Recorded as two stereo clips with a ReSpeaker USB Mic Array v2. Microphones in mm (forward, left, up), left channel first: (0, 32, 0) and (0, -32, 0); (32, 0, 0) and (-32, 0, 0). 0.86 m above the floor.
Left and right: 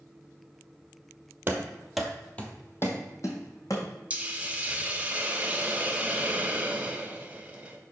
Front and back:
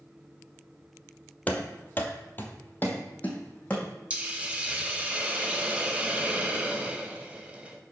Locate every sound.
1.5 s running footsteps: 55° right, 1.1 m; by 3.9 s 70° left, 2 m
4.1 s a hiss: 135° right, 0.8 m